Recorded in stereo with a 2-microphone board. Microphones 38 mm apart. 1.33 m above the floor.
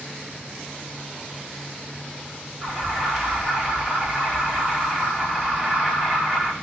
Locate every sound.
2.6 s an alarm: 15° right (ahead or behind), 4.5 m